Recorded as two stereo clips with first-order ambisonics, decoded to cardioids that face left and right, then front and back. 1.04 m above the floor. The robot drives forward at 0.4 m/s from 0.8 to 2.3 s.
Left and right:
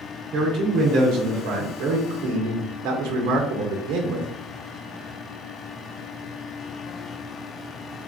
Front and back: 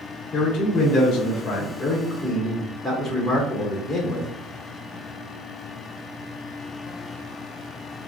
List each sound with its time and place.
0.3 s a man speaking: 55° right, 1.0 m; by 4.3 s 95° right, 0.8 m